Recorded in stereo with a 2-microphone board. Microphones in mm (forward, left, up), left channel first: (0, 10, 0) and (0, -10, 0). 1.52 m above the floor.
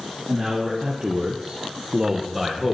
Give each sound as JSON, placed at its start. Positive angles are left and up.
{"t": 0.3, "sound": "a man speaking", "side_deg": -40, "distance_m": 1.3}